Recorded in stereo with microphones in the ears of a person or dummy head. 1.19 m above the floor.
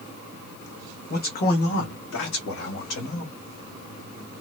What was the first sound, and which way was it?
A man speaking, 45° left (ahead or behind).